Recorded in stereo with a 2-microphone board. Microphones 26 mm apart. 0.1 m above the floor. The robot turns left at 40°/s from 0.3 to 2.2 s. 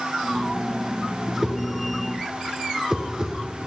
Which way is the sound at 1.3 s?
10° right (ahead or behind).